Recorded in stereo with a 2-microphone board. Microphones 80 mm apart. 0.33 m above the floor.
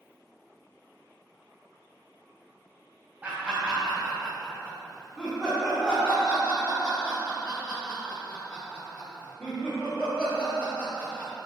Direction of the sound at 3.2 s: 20° right (ahead or behind).